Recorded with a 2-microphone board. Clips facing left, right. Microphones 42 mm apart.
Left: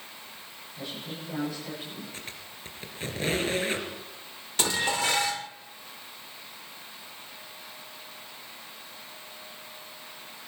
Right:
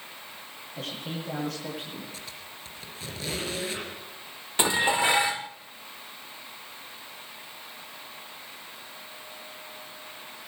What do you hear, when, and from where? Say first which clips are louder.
0.8 s a man speaking: right 3 dB; 75° right (ahead or behind), 9.5 m; by 2.0 s 70° right (ahead or behind), 11 m
2.1 s a squeak: even; 35° left (ahead or behind), 3 m
4.6 s dishes clattering: right 4 dB; 20° right (ahead or behind), 0.5 m